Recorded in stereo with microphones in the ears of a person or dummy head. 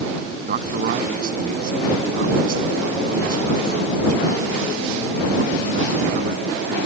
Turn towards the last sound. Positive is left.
turn(degrees=-45)  # may be behind; listen again after turning